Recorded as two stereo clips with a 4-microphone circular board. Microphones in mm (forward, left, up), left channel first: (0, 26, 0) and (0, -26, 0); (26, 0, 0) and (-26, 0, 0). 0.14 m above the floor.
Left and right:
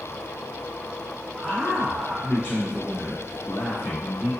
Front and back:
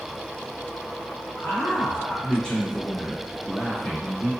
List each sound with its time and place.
1.4 s a man speaking: 5° left, 1.9 m; by 4.3 s 110° left, 1.8 m